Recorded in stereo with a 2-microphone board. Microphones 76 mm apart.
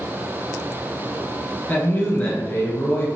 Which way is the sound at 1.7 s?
25° left (ahead or behind).